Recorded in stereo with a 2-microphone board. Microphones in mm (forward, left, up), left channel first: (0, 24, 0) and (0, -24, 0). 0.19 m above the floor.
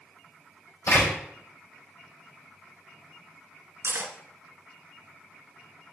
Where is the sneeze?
No sneeze in this recording.